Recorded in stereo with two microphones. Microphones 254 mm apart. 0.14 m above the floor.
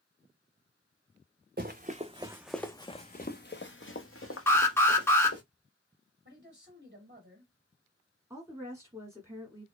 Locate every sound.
1.6 s running footsteps: 40° right (ahead or behind), 0.7 m; by 5.4 s 70° left (ahead or behind), 1.6 m
4.5 s an alarm: 10° left (ahead or behind), 1.2 m
6.2 s a man speaking: 40° right (ahead or behind), 2 m
8.3 s a woman speaking: 10° right (ahead or behind), 1.1 m